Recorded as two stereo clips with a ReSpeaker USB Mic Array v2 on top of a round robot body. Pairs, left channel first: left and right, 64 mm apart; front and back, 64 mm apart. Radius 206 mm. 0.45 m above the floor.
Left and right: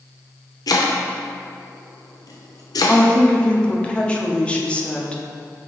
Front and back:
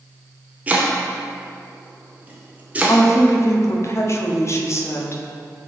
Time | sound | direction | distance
0.7 | chopping | 110° left | 0.5 m
2.9 | a woman speaking | 20° left | 1.0 m